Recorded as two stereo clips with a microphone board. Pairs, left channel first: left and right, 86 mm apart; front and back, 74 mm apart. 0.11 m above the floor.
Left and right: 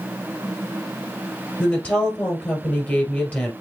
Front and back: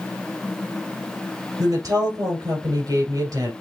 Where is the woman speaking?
155° left, 3 m.